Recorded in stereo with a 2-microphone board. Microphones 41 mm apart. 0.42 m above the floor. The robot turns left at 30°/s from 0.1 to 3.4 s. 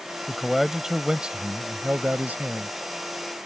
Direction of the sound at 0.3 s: 5° left.